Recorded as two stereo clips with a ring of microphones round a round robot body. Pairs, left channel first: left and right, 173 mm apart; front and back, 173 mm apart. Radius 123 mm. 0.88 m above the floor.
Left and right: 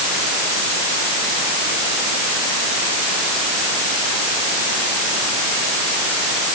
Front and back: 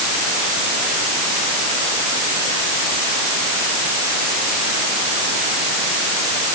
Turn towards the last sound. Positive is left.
No sound to turn to.